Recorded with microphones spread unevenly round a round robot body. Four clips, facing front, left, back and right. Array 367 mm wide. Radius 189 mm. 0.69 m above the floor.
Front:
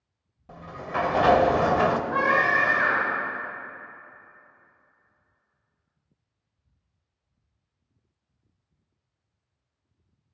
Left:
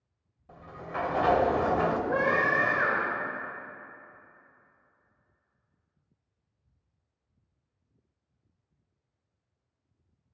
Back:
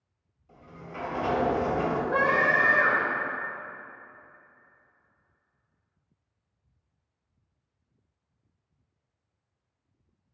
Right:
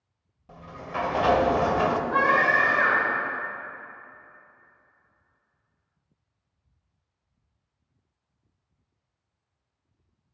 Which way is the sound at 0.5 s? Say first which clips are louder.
Right 3 dB, front 11 dB; 25° right.